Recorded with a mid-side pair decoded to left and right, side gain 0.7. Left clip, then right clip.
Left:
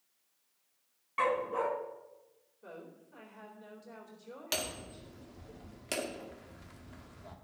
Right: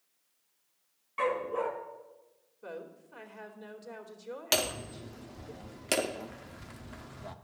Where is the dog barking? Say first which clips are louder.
Even; 20° left, 2.5 m.